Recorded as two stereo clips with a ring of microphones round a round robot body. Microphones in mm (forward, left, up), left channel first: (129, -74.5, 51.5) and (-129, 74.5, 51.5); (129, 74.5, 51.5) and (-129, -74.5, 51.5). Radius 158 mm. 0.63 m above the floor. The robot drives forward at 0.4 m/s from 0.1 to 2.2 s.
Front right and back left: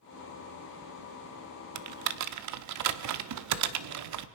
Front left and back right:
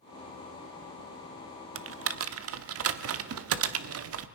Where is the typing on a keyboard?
170° left, 0.9 m.